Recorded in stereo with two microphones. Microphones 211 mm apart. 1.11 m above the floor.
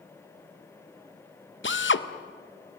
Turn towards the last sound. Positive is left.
turn(degrees=65)  # may be behind; listen again after turning